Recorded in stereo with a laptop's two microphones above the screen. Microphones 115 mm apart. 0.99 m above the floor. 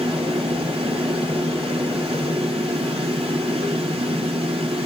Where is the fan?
55° right (ahead or behind), 1.4 m.